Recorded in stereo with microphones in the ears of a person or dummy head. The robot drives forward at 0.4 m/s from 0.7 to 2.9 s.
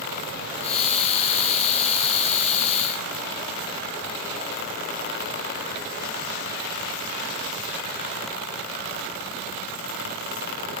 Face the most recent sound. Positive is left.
No sound to turn to.